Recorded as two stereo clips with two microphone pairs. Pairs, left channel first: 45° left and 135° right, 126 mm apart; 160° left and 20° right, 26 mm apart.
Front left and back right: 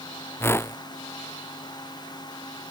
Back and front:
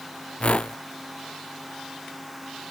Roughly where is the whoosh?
Behind left.